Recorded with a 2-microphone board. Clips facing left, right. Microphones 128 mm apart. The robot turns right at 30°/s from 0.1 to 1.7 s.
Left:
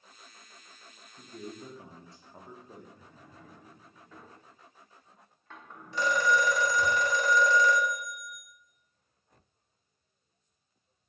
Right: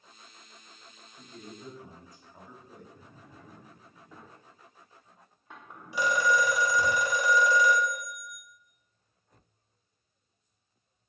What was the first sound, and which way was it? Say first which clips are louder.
A man speaking: left 3 dB; 30° left (ahead or behind).